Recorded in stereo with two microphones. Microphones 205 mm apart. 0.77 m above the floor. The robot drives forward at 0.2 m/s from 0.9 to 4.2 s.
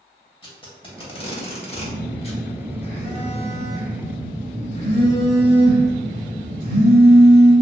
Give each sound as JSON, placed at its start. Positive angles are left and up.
{"t": 0.4, "sound": "tape being pulled", "side_deg": 25, "distance_m": 0.7}
{"t": 1.7, "sound": "a phone buzzing", "side_deg": 25, "distance_m": 1.6}